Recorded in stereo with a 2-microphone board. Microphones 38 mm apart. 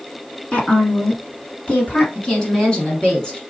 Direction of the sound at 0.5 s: 25° left (ahead or behind).